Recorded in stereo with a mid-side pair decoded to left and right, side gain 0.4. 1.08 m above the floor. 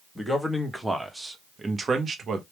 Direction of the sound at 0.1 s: 5° right.